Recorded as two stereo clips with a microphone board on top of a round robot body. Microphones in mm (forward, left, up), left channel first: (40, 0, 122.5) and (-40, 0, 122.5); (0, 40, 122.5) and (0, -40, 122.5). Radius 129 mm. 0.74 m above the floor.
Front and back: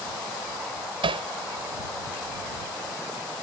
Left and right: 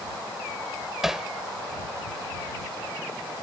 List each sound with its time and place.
1.0 s hammering: 175° right